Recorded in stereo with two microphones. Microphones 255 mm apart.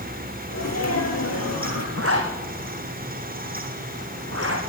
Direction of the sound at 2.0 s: 60° right (ahead or behind).